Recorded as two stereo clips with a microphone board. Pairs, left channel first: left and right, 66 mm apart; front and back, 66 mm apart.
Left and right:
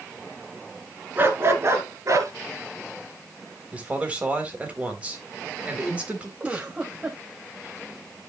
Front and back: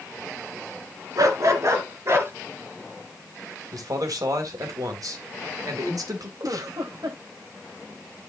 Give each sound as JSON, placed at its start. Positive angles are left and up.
{"t": 1.2, "sound": "a dog barking", "azimuth_deg": -150, "distance_m": 2.0}
{"t": 3.7, "sound": "a man speaking", "azimuth_deg": -160, "distance_m": 3.0}
{"t": 6.4, "sound": "a giggle", "azimuth_deg": -160, "distance_m": 2.5}